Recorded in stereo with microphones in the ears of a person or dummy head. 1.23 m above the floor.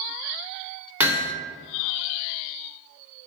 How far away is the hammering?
About 0.8 m.